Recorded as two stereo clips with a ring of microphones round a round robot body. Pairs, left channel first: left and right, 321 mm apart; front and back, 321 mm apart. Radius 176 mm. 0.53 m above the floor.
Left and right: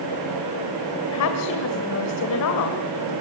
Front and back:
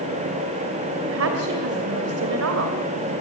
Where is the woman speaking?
130° left, 2 m.